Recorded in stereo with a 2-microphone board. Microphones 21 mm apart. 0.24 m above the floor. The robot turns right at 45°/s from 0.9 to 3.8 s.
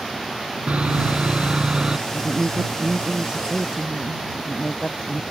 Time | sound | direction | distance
0.7 | sawing | 80° right | ?
2.1 | a woman speaking | 105° right | ?
4.3 | a woman speaking | 40° left (ahead or behind) | ?